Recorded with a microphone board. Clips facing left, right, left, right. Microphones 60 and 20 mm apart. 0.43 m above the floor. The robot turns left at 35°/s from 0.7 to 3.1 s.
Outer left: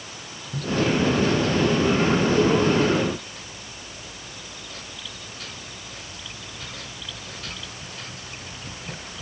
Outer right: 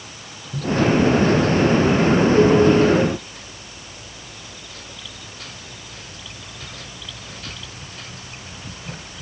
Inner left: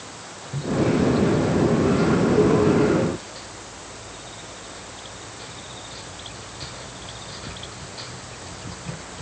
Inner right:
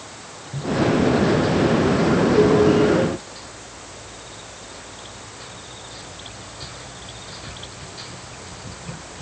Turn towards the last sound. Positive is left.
No sound to turn to.